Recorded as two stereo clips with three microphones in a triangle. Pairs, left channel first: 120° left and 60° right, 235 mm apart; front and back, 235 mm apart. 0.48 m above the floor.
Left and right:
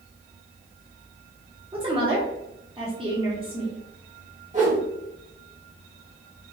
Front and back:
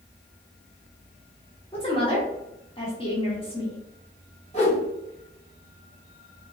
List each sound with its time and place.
1.7 s a woman speaking: 30° right, 1.0 m
4.5 s a whoosh: 35° right, 1.6 m